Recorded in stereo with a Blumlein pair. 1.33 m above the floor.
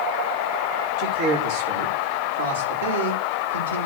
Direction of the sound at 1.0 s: 40° right.